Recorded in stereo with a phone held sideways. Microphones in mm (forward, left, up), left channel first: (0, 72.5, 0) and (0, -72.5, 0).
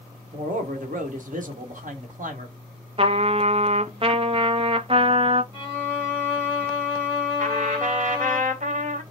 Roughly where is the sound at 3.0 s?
Right.